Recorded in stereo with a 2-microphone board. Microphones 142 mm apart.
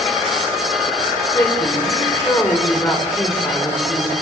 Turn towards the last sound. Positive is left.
turn(degrees=20)  # may be behind; listen again after turning